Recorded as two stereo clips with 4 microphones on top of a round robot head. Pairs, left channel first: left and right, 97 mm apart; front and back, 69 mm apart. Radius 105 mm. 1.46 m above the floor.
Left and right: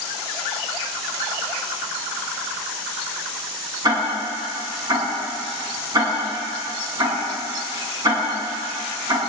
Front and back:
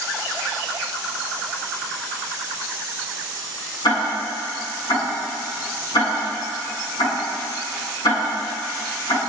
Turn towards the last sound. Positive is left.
turn(degrees=-35)